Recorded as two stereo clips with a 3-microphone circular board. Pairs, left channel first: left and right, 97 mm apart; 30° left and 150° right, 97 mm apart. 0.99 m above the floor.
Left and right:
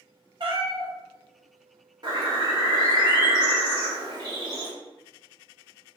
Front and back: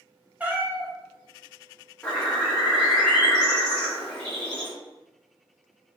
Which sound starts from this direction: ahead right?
A bird, at 2.0 s.